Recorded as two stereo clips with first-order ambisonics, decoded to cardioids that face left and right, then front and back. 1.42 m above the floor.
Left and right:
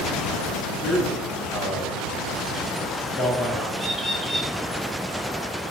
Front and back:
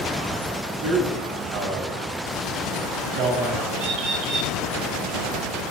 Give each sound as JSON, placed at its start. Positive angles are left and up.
{"t": 0.8, "sound": "a man speaking", "azimuth_deg": 165, "distance_m": 3.0}
{"t": 3.8, "sound": "a bird", "azimuth_deg": 180, "distance_m": 2.0}